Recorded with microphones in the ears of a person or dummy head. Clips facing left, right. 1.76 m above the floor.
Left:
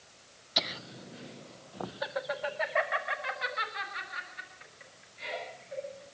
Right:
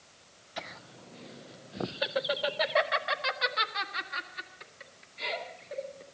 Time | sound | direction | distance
0.6 | laughter | 45° left (ahead or behind) | 0.6 m